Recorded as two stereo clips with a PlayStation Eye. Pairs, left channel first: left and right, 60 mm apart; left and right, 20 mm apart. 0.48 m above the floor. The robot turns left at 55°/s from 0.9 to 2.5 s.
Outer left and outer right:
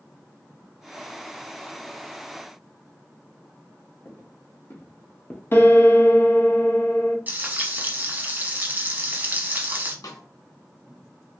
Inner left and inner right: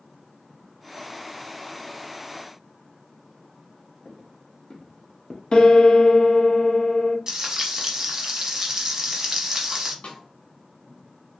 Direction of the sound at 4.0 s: 50° left (ahead or behind).